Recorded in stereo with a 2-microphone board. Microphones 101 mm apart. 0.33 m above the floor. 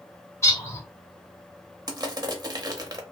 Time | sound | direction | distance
0.4 | a bird | 30° left (ahead or behind) | 1.2 m
1.9 | crushing | 40° right (ahead or behind) | 0.5 m